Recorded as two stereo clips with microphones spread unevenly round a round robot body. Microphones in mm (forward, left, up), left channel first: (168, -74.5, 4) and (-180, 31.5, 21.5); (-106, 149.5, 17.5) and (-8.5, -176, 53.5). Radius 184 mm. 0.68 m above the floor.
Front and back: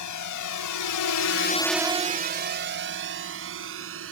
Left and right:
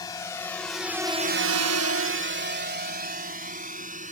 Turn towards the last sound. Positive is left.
turn(degrees=-140)